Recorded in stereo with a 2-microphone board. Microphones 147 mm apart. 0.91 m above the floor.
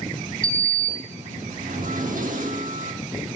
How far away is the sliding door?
About 1.0 m.